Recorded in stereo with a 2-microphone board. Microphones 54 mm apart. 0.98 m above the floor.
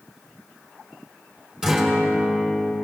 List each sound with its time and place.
1.6 s a guitar: 10° right (ahead or behind), 3 m